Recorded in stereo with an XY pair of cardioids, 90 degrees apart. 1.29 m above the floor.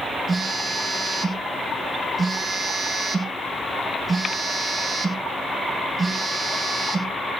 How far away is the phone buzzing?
About 8 m.